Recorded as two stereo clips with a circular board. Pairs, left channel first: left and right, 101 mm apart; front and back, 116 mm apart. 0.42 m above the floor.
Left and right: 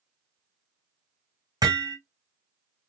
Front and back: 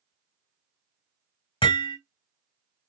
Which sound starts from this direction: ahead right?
Hammering, at 1.6 s.